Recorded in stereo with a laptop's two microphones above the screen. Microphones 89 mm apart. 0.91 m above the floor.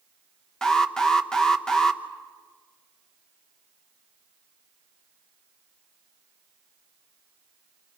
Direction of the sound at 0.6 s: 10° left (ahead or behind).